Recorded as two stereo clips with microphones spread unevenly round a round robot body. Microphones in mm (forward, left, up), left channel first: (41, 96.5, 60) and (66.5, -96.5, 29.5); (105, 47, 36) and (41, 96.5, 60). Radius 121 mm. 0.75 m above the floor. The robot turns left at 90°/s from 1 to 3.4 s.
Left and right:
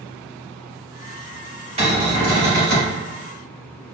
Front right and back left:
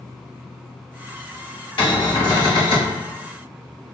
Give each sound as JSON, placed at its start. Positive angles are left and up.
{"t": 1.8, "sound": "a cupboard door", "azimuth_deg": -20, "distance_m": 1.9}